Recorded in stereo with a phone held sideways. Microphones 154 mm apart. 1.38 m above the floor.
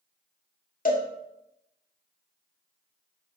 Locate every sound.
0.8 s a cowbell: 65° left (ahead or behind), 1.9 m